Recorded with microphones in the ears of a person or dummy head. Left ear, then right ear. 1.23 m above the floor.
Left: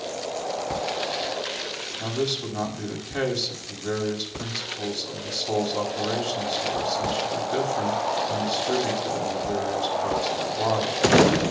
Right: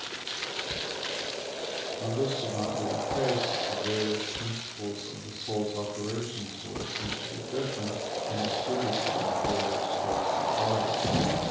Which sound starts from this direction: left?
A man speaking, at 2.0 s.